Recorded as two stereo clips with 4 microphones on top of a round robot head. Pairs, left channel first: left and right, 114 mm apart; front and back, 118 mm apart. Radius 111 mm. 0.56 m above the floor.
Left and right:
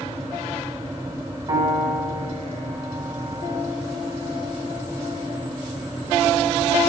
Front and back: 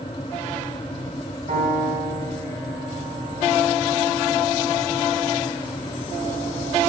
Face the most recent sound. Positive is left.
turn(degrees=-145)